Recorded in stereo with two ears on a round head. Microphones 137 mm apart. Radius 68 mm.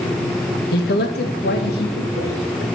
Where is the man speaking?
70° left (ahead or behind), 1.1 m; by 2.6 s 75° left (ahead or behind), 2.5 m.